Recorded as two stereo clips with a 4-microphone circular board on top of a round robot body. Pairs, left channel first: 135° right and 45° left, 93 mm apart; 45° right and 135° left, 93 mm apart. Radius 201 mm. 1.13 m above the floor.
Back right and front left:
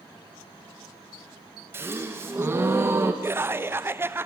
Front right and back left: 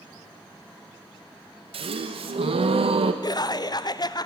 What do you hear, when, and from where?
1.7 s a gasp: 110° left, 0.7 m
3.2 s laughter: 15° right, 0.8 m